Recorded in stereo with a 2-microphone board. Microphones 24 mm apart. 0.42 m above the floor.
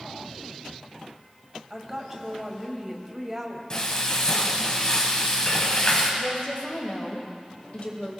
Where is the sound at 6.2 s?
55° left (ahead or behind), 2.5 m.